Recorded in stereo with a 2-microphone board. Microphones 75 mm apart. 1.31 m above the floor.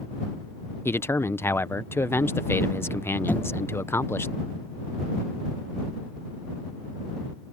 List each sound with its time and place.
0.8 s a man speaking: 30° left (ahead or behind)
3.3 s knocking: 20° left (ahead or behind)